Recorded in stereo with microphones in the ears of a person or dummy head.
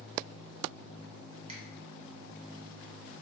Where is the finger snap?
35° right (ahead or behind), 0.9 m.